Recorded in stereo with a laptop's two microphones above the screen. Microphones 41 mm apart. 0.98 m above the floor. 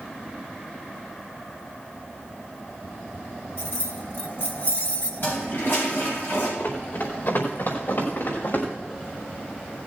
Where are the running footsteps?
60° left (ahead or behind), 4.5 m; by 8.7 s 65° left (ahead or behind), 6 m.